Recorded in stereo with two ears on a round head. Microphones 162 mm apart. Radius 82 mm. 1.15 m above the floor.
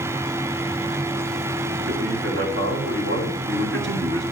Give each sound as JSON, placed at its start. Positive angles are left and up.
{"t": 1.9, "sound": "a man speaking", "side_deg": -60, "distance_m": 7.0}